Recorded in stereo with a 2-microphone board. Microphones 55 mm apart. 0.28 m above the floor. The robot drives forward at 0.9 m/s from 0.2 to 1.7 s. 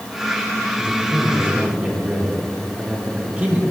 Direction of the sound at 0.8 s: 30° right (ahead or behind).